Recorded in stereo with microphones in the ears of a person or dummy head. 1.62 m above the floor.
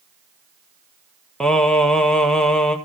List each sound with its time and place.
1.4 s singing: 5° left (ahead or behind), 1.2 m